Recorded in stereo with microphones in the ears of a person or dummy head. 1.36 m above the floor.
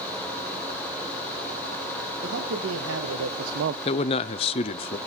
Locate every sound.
2.2 s a man speaking: 70° right (ahead or behind), 1.7 m; by 3.8 s 50° right (ahead or behind), 0.5 m
3.9 s a man speaking: 30° left (ahead or behind), 0.5 m